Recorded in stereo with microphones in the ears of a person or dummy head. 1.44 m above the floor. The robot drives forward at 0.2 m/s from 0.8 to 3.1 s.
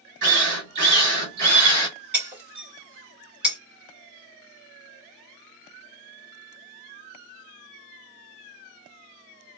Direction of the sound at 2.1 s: 5° right (ahead or behind).